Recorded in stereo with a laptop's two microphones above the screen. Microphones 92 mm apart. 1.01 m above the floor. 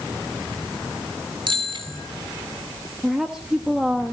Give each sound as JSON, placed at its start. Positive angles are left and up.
{"t": 1.5, "sound": "a bicycle bell", "side_deg": -50, "distance_m": 4.5}
{"t": 3.0, "sound": "a woman speaking", "side_deg": -5, "distance_m": 1.2}